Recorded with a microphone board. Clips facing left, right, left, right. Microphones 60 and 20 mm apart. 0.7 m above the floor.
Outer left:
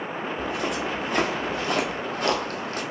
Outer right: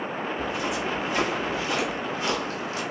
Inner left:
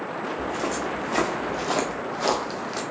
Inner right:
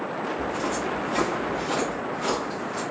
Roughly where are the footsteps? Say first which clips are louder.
Outer left 2 dB, inner left 1 dB; left.